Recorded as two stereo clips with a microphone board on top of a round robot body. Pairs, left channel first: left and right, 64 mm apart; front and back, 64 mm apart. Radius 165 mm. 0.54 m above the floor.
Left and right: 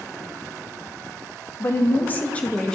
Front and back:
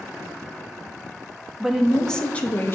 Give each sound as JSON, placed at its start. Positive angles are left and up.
{"t": 1.6, "sound": "a woman speaking", "azimuth_deg": 105, "distance_m": 1.1}